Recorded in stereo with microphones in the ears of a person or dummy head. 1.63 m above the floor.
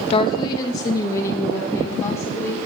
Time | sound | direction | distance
0.1 | a woman speaking | 25° left (ahead or behind) | 0.8 m